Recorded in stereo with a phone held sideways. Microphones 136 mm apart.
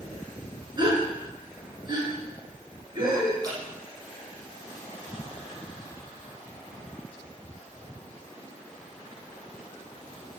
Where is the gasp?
35° right (ahead or behind), 7 m.